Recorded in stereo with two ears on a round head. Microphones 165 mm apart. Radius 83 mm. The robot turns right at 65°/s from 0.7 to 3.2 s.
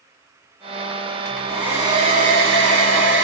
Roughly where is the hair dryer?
Behind.